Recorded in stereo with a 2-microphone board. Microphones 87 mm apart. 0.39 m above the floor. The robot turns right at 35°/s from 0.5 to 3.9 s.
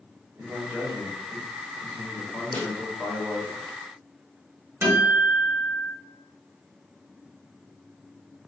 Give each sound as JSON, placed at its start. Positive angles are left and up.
{"t": 0.3, "sound": "a man speaking", "side_deg": -15, "distance_m": 1.1}
{"t": 2.5, "sound": "a snare drum", "side_deg": 20, "distance_m": 1.1}
{"t": 4.8, "sound": "a guitar", "side_deg": -25, "distance_m": 1.3}